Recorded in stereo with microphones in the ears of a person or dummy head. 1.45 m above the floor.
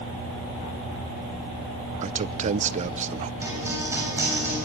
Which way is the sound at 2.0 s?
40° right (ahead or behind).